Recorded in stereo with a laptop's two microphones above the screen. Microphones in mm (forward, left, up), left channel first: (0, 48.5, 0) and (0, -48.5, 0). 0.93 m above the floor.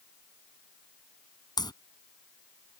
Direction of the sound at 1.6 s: 45° left (ahead or behind).